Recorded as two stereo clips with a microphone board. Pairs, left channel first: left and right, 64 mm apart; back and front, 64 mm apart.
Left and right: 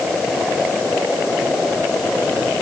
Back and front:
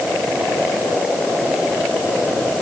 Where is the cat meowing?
I don't hear a cat meowing.